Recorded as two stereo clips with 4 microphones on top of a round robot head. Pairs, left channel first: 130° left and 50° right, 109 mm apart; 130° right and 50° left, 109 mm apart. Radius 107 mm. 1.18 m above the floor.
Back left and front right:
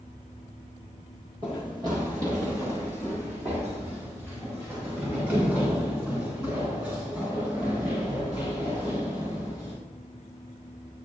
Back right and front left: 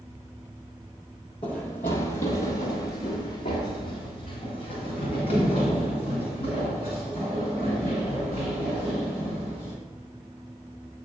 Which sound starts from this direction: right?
Running footsteps, at 1.4 s.